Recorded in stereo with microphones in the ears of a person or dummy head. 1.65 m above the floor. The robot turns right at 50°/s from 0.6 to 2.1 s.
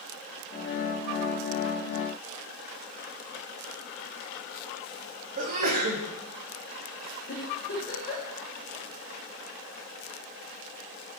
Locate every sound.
5.4 s a sneeze: 35° right (ahead or behind), 0.9 m
7.3 s a giggle: 45° left (ahead or behind), 1.7 m